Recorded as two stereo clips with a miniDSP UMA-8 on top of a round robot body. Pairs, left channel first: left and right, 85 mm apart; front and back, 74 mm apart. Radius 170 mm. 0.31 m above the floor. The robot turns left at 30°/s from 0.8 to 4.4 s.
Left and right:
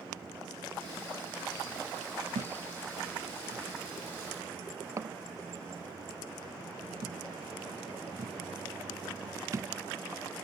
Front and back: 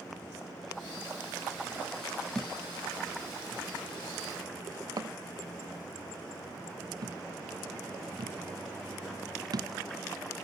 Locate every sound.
2.4 s a thud: 85° right; by 9.7 s 145° right